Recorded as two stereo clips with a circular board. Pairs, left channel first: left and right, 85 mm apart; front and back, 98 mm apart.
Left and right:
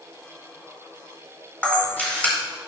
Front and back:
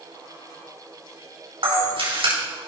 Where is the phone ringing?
I don't hear a phone ringing.